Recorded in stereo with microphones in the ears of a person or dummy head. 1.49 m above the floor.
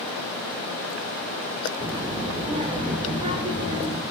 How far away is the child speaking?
About 1.8 m.